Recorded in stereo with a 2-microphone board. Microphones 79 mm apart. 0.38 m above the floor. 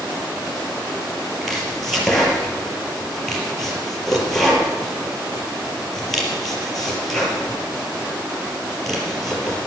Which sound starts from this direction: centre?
Chopping, at 1.4 s.